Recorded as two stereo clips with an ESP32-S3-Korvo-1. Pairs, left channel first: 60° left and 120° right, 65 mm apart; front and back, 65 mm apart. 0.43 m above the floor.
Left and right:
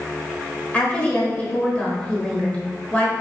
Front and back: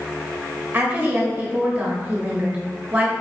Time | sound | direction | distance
0.7 | a woman speaking | 125° left | 1.3 m